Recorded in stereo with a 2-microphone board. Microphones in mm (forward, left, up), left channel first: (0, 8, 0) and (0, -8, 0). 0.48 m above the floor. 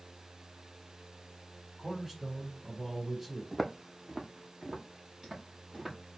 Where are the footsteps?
Centre (ahead or behind), 0.8 m; by 6.0 s 35° right (ahead or behind), 2.5 m.